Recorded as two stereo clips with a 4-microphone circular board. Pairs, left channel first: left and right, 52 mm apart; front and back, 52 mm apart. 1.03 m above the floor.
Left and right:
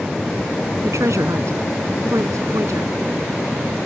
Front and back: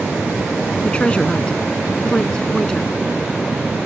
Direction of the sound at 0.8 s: 70° right.